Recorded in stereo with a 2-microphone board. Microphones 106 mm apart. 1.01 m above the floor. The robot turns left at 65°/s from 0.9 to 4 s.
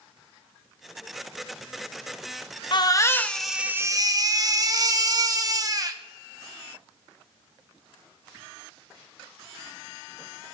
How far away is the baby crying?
About 0.7 m.